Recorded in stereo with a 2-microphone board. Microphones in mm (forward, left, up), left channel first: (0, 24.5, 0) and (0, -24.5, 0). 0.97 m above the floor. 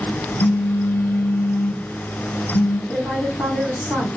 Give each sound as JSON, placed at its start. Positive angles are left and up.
{"t": 0.4, "sound": "a phone buzzing", "side_deg": 50, "distance_m": 2.0}
{"t": 2.9, "sound": "a woman speaking", "side_deg": 55, "distance_m": 2.5}